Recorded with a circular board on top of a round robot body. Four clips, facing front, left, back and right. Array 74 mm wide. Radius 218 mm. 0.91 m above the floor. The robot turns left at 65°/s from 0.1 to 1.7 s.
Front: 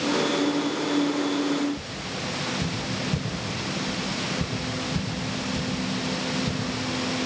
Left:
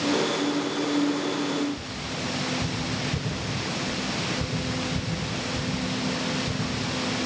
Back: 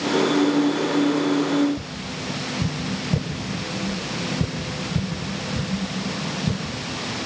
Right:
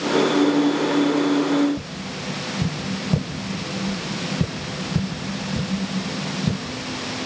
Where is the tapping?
110° right, 4 m.